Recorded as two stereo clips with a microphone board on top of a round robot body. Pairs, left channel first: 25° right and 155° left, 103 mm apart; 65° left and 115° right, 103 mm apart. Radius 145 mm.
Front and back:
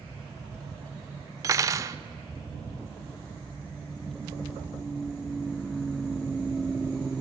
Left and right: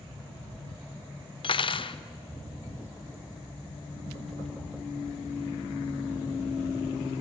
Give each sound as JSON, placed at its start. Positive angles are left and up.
{"t": 1.4, "sound": "cutlery clinking", "azimuth_deg": 100, "distance_m": 0.8}